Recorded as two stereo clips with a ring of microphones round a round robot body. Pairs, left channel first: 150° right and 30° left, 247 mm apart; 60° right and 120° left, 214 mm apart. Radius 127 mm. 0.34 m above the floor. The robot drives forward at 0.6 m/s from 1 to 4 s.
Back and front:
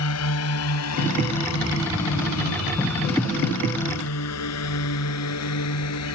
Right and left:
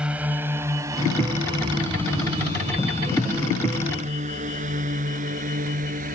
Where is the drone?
155° right; by 6.1 s straight behind.